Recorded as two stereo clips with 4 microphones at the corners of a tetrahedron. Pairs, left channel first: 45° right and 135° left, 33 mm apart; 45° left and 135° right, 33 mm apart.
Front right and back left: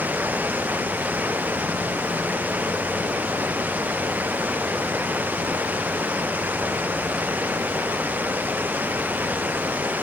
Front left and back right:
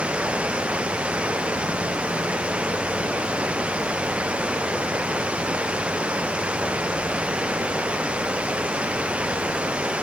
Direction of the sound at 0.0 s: 170° left.